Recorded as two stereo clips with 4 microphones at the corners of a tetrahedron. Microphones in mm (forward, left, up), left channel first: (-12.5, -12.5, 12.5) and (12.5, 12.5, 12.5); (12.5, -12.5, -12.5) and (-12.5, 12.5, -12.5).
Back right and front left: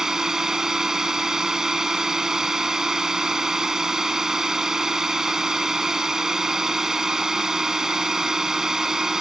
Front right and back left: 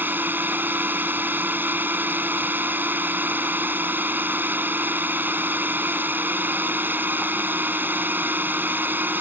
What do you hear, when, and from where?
0.0 s a drone: 120° left